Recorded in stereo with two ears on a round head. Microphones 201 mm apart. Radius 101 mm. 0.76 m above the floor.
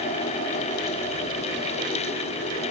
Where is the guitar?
No guitar in this recording.